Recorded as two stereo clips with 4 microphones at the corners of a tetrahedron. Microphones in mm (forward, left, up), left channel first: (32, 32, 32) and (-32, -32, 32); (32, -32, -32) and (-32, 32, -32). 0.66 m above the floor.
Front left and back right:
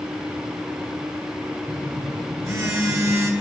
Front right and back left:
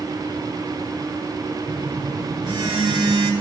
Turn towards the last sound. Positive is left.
turn(degrees=170)